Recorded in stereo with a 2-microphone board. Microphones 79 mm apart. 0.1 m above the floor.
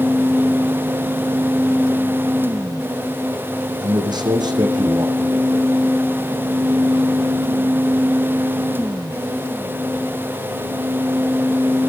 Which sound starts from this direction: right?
A man speaking, at 3.8 s.